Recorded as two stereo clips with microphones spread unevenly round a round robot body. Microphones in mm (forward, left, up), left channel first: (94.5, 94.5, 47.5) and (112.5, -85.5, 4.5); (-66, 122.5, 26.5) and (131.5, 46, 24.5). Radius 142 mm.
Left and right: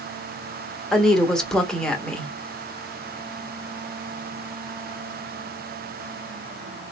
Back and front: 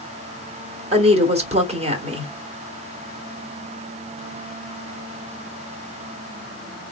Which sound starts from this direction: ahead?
A woman speaking, at 0.9 s.